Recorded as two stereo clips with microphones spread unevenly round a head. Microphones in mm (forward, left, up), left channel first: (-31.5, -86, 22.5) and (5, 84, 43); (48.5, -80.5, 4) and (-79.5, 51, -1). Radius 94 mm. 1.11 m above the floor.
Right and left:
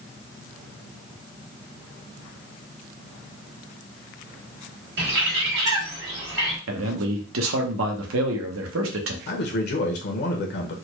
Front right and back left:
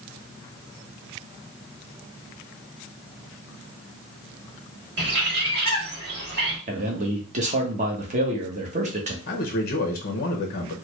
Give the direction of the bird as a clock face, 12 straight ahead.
9 o'clock.